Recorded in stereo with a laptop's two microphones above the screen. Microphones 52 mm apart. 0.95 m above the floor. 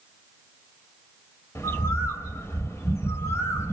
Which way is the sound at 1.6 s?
55° left (ahead or behind).